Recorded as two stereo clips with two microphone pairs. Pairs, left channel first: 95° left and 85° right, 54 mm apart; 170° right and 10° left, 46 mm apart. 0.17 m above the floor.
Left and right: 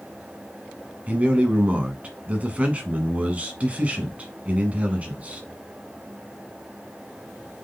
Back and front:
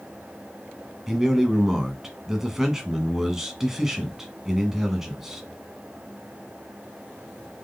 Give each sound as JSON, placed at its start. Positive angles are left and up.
{"t": 1.1, "sound": "a man speaking", "azimuth_deg": -60, "distance_m": 1.3}